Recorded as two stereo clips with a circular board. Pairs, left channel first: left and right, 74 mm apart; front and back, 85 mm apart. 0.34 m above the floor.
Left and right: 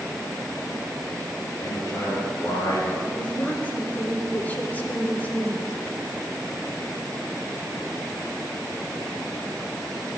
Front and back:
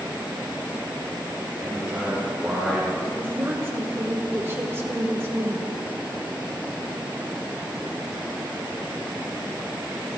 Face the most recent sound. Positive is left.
turn(degrees=140)